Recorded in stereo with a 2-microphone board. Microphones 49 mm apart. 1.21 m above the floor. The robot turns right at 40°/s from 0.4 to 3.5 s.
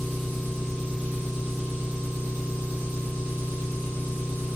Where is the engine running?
175° right, 1.5 m; by 4.6 s 50° right, 1.5 m.